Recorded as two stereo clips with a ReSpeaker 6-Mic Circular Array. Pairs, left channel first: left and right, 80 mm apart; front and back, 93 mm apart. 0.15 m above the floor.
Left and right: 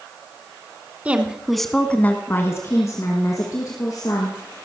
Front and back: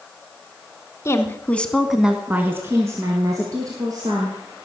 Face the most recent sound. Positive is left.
turn(degrees=130)